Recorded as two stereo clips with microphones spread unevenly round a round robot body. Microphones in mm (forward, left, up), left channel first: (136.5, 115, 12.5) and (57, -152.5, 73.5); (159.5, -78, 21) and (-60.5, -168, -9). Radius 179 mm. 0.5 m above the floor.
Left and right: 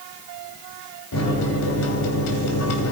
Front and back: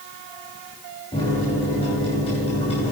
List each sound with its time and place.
1.1 s a microwave: 100° left, 2.5 m